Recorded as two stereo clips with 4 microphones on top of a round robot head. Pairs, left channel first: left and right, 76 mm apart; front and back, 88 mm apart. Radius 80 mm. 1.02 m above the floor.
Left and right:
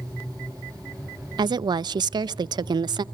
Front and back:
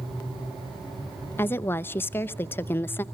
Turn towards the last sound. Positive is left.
turn(degrees=-65)